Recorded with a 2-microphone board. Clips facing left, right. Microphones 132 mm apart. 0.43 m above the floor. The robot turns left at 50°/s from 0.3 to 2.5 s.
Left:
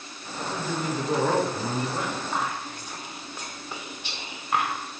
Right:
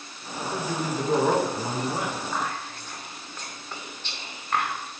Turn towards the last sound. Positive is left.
turn(degrees=15)  # may be behind; listen again after turning